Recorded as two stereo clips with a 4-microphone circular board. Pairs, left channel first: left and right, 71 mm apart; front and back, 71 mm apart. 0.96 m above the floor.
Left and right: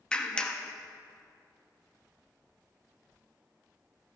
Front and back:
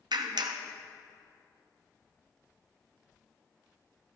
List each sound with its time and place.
0.1 s a clap: 165° left, 0.6 m